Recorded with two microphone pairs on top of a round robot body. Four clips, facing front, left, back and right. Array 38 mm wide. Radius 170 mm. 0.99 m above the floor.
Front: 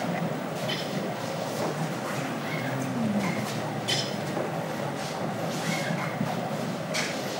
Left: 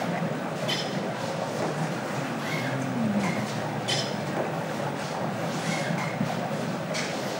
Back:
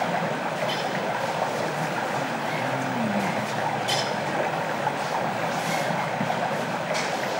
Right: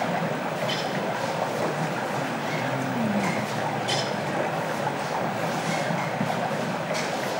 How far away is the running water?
About 1.1 m.